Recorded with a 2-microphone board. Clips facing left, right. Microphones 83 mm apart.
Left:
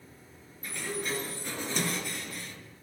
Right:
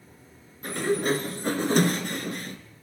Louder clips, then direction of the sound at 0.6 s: Right 11 dB; 55° right (ahead or behind).